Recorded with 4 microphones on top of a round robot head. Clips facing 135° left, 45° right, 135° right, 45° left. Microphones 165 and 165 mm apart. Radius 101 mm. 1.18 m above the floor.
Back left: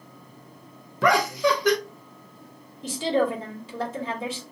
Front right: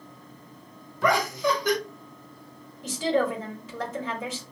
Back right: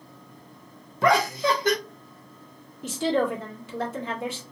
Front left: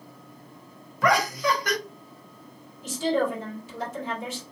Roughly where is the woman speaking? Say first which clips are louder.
Back left 1 dB, back right 1 dB; behind.